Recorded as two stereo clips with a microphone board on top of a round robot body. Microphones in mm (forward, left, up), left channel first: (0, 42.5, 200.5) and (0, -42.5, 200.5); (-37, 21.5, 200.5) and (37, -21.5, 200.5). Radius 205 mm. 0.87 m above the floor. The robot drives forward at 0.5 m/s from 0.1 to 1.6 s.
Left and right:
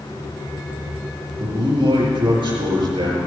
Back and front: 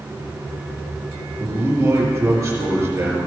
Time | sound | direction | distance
1.4 | a man speaking | 85° right | 4.5 m